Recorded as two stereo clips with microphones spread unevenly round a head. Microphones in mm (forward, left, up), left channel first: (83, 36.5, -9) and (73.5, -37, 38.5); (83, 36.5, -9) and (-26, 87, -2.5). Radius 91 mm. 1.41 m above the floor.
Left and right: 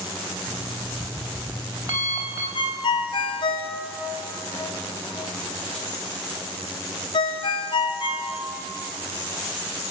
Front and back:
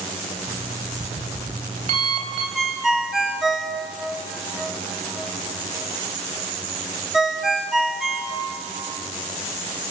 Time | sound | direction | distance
0.5 | an alarm clock | 155° right | 3.5 m
2.5 | a ringtone | 65° left | 2 m